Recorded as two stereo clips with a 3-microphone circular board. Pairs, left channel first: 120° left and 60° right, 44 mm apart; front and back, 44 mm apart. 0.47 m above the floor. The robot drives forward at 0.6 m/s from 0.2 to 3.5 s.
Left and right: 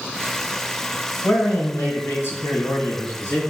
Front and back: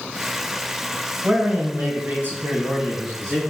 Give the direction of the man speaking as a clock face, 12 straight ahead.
8 o'clock.